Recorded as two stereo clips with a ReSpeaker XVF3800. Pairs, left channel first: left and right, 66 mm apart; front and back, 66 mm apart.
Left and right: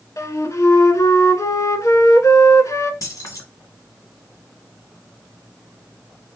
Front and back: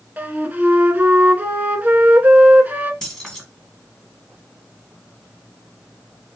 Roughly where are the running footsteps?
I don't hear running footsteps.